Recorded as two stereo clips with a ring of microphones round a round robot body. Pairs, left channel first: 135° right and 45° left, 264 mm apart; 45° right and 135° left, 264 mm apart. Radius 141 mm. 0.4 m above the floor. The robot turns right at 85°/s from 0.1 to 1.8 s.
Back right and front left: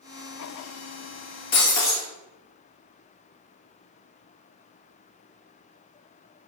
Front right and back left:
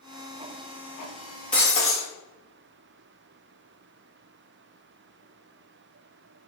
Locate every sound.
1.5 s breaking glass: 130° right, 1.1 m; by 2.0 s 110° right, 1.1 m